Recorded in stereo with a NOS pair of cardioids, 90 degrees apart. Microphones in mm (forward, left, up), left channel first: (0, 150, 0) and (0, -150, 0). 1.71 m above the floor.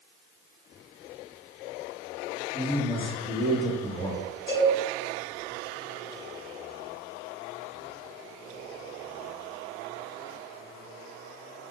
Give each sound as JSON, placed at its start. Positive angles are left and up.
{"t": 2.5, "sound": "a man speaking", "azimuth_deg": 15, "distance_m": 0.9}
{"t": 4.5, "sound": "a cowbell", "azimuth_deg": 40, "distance_m": 1.6}